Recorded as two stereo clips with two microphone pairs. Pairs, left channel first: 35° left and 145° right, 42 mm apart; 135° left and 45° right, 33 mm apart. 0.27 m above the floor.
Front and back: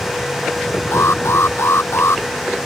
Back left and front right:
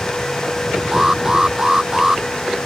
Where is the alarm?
30° left.